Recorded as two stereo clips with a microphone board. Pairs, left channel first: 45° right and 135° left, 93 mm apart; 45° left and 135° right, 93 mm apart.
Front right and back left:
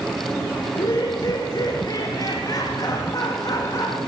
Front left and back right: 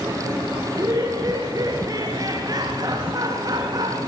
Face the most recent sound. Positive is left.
turn(degrees=-90)